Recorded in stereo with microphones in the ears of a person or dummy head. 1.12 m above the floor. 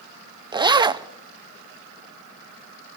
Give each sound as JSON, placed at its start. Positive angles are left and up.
{"t": 0.5, "sound": "a zipper", "side_deg": -25, "distance_m": 0.6}